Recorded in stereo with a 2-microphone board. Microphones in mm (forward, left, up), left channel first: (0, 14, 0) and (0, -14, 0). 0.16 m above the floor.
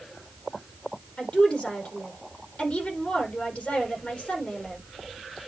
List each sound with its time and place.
1.2 s a woman speaking: 50° left (ahead or behind), 6 m